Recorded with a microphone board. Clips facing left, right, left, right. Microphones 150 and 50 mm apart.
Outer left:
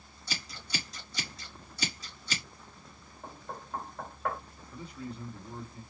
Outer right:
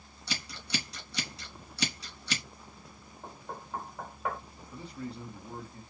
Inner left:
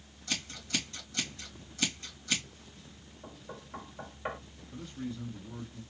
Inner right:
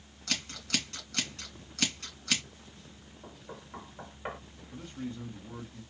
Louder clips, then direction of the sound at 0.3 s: Outer right 3 dB, inner right 1 dB; 65° right (ahead or behind).